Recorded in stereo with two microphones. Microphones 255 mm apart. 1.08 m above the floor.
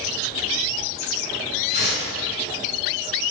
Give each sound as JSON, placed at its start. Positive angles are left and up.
{"t": 1.7, "sound": "tearing paper", "side_deg": 40, "distance_m": 5.0}